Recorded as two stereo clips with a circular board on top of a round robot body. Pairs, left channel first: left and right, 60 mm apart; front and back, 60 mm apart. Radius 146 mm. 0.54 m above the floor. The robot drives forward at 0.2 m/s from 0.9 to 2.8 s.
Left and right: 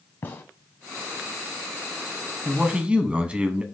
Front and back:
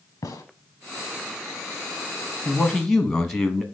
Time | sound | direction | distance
0.2 | a gunshot | 40° left | 0.9 m
2.5 | a man speaking | 65° right | 1.3 m